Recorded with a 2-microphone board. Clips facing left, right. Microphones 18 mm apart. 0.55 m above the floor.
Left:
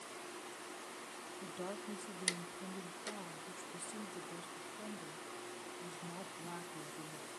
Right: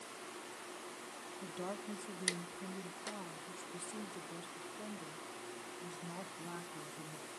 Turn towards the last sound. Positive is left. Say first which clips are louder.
# right 2 dB
turn(degrees=-5)  # may be behind; listen again after turning